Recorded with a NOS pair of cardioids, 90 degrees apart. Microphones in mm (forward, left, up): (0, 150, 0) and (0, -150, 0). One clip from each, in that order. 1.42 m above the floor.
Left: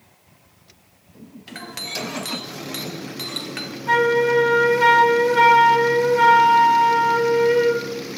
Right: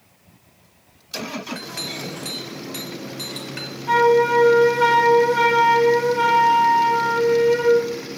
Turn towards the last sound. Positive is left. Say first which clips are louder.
# right 2 dB
turn(degrees=20)